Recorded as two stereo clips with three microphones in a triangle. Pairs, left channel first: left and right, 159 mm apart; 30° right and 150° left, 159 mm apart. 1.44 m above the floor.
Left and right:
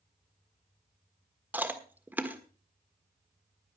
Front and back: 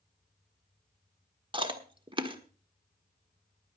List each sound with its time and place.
1.5 s chewing: 165° right, 1.4 m